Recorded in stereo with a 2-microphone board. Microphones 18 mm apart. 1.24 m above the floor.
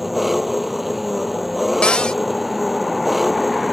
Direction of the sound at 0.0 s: 5° right (ahead or behind).